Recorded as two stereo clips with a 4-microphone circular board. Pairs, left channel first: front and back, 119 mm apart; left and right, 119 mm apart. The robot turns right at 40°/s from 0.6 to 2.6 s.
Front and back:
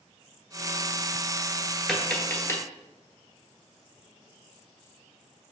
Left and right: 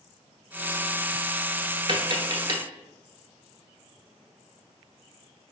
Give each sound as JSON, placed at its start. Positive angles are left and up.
{"t": 1.9, "sound": "tapping", "azimuth_deg": -85, "distance_m": 0.9}